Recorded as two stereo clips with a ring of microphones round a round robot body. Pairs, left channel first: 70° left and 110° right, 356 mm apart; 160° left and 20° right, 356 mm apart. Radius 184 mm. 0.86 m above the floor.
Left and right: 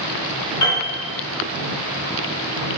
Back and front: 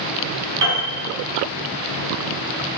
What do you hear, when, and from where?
0.6 s a piano: 20° left, 1.5 m